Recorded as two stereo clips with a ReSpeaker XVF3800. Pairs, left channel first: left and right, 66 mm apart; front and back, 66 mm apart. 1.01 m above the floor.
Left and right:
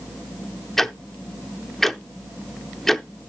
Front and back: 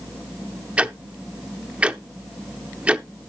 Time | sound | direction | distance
0.8 | ticking | 165° left | 0.6 m